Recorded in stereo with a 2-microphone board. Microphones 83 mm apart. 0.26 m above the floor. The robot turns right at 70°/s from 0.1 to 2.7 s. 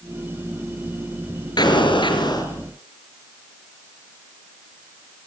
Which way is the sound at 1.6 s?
65° left.